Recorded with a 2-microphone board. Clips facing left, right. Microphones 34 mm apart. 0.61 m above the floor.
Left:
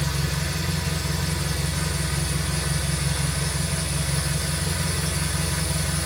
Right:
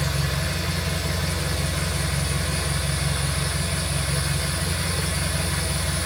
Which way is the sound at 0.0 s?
20° right (ahead or behind).